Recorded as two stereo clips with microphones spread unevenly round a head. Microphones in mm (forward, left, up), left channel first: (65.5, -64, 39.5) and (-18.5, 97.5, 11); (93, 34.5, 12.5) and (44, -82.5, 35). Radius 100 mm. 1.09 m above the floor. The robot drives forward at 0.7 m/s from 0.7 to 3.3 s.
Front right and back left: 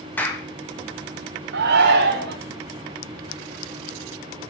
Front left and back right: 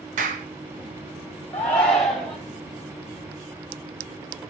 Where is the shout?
145° left, 2.5 m; by 2.4 s 155° left, 3 m.